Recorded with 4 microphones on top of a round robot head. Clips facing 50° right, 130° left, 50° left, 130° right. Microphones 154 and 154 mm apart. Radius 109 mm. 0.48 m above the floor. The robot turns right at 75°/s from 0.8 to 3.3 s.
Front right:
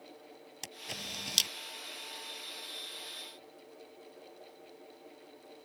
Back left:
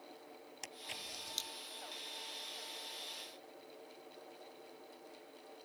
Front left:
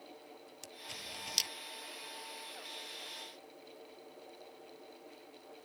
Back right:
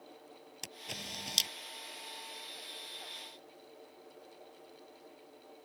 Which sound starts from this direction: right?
A camera shutter, at 0.6 s.